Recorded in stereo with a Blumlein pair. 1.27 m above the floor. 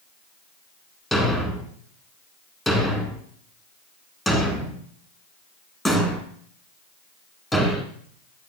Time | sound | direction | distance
1.1 | a thud | straight ahead | 1.8 m